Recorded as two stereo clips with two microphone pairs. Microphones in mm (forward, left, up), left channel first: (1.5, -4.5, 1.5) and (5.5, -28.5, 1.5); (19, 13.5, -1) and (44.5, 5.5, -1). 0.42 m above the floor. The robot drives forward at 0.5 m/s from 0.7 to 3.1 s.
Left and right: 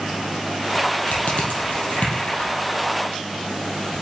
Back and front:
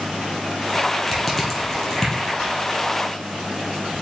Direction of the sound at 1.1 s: 75° left.